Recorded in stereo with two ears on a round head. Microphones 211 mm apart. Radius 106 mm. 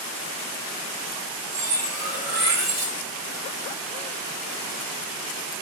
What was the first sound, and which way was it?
Cutlery clinking, 85° right.